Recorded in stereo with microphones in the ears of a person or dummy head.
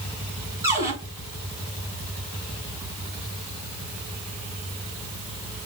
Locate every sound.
0.6 s a cupboard door: 20° right (ahead or behind), 4.5 m